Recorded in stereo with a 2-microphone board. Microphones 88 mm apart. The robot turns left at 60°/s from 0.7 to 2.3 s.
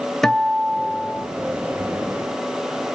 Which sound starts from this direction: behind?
A guitar, at 0.2 s.